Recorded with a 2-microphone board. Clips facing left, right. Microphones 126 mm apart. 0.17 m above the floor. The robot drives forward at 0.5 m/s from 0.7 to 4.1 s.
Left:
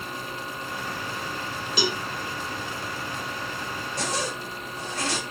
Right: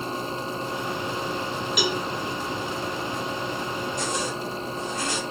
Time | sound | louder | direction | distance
1.8 | a cowbell | even | 30° left (ahead or behind) | 2 m
4.0 | a zipper | right 2 dB | 80° left | 7.5 m